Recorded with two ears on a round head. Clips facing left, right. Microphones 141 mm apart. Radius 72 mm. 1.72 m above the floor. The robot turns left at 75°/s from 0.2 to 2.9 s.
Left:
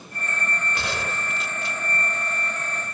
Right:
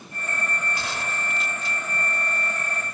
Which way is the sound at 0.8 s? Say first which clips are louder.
Left 2 dB; 120° left.